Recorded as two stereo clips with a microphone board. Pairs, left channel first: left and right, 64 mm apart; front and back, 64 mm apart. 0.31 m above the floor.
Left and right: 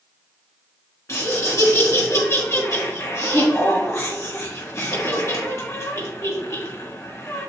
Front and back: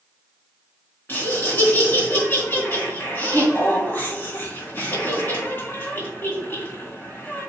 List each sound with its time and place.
1.1 s laughter: 55° left, 4 m